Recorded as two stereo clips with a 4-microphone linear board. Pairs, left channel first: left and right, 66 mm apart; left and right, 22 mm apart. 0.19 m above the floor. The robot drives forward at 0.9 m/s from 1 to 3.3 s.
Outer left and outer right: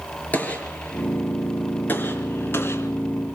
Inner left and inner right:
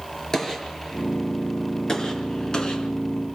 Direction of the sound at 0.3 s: 25° left (ahead or behind).